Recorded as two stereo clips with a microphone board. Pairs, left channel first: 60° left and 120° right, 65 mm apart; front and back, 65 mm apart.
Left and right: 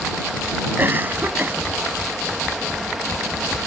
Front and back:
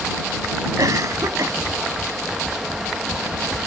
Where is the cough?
175° right.